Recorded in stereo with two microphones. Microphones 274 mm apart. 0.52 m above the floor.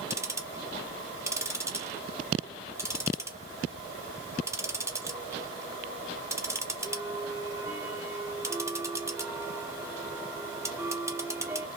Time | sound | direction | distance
0.1 | ticking | 10° right (ahead or behind) | 0.6 m